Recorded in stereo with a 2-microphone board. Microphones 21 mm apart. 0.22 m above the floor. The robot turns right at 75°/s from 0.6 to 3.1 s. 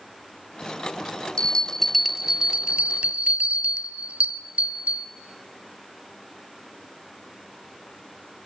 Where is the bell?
130° left, 0.9 m; by 5.1 s 100° right, 0.9 m.